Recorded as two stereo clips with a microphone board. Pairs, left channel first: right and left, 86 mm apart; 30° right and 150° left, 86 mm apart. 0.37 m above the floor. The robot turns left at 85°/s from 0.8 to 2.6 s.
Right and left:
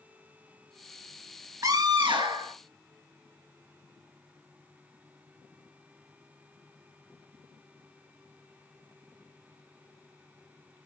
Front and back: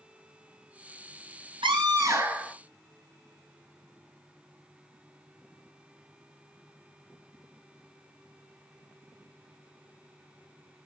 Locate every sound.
1.6 s a scream: 140° left, 5.5 m; by 2.5 s 60° left, 5.5 m